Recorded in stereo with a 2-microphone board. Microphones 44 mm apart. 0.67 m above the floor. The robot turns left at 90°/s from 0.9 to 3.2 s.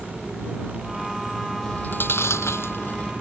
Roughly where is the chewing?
Left.